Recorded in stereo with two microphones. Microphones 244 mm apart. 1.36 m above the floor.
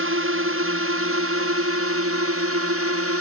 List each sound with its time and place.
0.0 s a drone: 60° right (ahead or behind); by 3.2 s 70° right (ahead or behind)